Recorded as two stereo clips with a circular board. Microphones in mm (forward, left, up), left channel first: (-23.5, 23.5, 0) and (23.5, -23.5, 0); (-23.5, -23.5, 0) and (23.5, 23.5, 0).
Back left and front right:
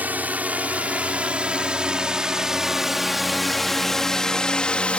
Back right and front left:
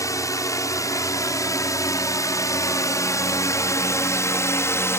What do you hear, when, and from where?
0.0 s a drone: 110° right; by 5.0 s 160° right